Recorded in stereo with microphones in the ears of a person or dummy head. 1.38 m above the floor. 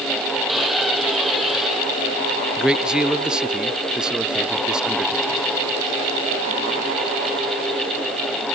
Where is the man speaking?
Centre (ahead or behind).